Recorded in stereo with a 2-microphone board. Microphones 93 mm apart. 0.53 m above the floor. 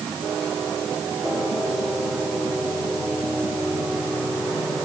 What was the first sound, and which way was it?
Only background noise.